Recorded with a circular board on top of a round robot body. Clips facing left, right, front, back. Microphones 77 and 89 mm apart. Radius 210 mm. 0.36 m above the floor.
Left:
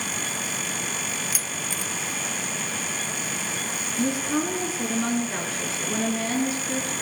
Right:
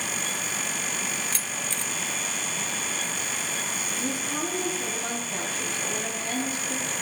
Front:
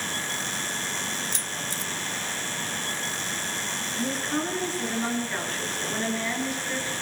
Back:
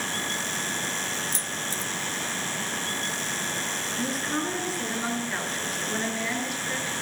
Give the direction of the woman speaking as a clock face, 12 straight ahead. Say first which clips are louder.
Left 7 dB, front 1 dB; 9 o'clock.